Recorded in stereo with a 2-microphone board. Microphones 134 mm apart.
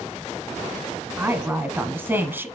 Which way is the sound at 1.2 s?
15° right (ahead or behind).